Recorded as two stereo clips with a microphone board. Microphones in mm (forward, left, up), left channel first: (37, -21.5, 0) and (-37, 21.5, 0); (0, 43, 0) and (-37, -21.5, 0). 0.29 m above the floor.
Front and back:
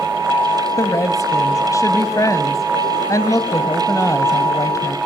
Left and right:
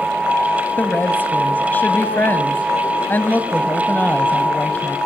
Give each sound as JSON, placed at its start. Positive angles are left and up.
{"t": 0.8, "sound": "a woman speaking", "azimuth_deg": 5, "distance_m": 1.6}